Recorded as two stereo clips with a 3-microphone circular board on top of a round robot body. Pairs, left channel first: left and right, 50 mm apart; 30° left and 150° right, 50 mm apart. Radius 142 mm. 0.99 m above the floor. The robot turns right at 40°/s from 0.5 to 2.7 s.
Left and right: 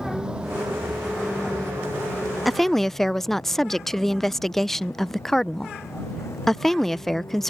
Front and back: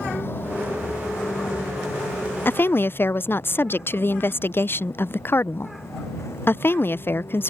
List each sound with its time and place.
0.0 s a vehicle: 15° right; by 7.5 s 60° left
2.5 s a woman speaking: straight ahead; by 7.5 s 10° left